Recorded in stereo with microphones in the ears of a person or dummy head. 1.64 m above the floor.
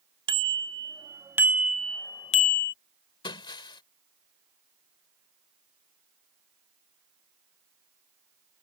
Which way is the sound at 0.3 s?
25° right (ahead or behind).